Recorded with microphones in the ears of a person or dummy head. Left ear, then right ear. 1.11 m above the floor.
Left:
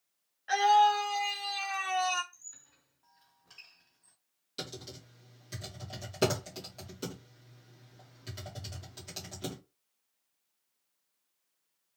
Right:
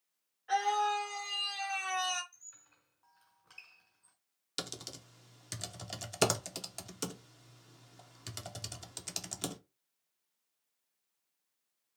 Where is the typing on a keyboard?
45° right (ahead or behind), 0.7 m.